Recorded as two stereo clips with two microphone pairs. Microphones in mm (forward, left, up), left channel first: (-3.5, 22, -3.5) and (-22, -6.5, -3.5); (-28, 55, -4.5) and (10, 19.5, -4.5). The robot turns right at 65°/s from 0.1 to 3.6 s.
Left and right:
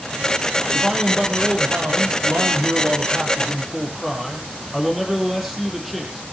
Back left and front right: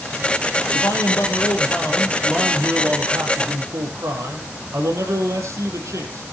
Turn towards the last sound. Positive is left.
turn(degrees=-40)